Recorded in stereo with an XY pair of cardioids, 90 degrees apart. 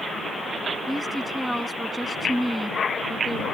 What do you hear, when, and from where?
0.9 s a woman speaking: 5° right